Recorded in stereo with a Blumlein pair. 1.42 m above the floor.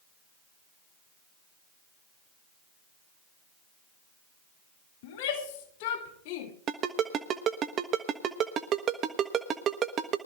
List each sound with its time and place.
5.0 s a shout: 50° left, 3 m
6.7 s a ringtone: 30° right, 1.1 m